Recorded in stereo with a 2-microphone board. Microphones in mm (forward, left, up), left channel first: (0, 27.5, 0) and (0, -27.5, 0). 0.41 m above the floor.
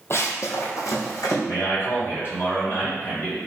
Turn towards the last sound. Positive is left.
turn(degrees=45)  # may be behind; listen again after turning